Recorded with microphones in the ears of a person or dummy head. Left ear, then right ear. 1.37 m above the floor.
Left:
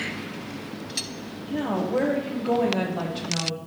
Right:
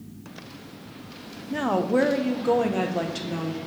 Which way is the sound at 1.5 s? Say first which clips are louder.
Right 3 dB; 65° right (ahead or behind).